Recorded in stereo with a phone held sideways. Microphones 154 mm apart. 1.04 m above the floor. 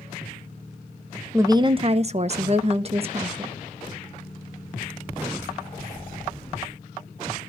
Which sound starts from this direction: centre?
A woman speaking, at 1.3 s.